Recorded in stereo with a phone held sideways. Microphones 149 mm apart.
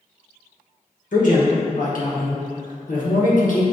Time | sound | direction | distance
1.1 | a man speaking | 60° left (ahead or behind) | 0.9 m